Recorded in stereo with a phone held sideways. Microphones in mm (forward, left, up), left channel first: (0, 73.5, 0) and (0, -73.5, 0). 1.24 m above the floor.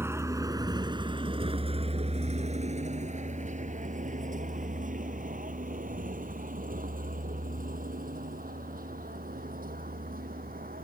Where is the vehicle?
15° right (ahead or behind); by 10.8 s 75° right (ahead or behind).